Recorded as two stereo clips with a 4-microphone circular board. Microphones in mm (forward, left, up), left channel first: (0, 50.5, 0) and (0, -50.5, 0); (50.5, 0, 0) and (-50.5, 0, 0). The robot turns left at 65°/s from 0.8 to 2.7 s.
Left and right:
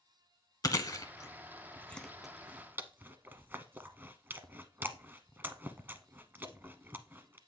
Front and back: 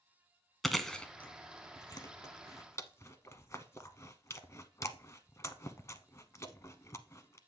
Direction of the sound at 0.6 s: 90° left.